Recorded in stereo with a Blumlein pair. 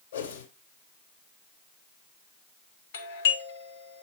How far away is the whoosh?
About 1.9 m.